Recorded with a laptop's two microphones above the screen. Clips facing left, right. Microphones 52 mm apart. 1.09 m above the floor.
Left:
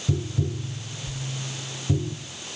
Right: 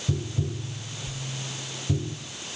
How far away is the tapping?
About 2 m.